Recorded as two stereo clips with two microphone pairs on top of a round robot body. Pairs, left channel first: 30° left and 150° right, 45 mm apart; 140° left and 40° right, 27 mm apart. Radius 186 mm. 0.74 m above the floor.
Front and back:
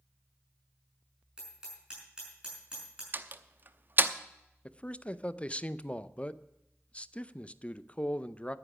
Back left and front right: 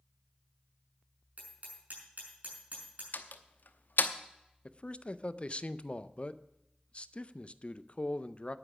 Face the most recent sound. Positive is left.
turn(degrees=95)